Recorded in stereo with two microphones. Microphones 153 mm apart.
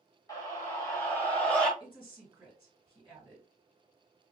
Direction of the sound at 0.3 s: 25° left (ahead or behind).